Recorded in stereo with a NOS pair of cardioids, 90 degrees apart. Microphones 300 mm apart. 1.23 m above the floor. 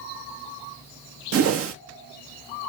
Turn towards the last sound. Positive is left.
turn(degrees=-50)